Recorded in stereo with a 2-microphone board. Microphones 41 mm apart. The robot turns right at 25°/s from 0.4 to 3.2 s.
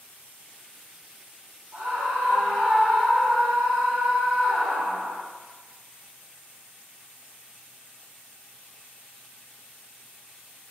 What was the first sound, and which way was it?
A scream, 70° right.